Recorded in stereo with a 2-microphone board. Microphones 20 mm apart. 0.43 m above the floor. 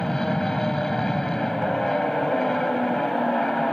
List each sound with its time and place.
0.0 s an aircraft: 35° left (ahead or behind)